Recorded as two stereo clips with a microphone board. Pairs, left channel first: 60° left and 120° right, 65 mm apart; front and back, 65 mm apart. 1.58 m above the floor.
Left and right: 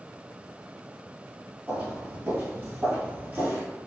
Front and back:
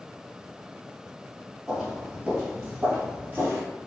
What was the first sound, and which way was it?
Footsteps, 100° right.